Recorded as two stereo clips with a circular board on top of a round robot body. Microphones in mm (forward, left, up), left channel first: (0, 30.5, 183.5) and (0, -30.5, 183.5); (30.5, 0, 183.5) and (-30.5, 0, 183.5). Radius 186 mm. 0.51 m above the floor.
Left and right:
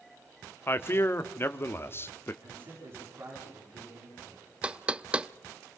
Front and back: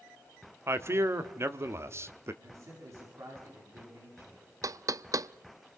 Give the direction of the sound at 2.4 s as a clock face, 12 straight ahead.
5 o'clock.